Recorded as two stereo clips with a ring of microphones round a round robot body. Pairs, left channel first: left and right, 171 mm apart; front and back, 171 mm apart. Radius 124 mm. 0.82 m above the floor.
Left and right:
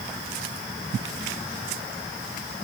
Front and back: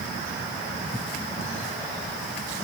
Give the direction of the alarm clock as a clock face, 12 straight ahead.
No alarm clock in this recording.